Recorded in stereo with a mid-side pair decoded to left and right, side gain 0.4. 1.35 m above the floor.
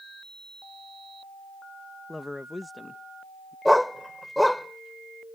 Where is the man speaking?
20° left.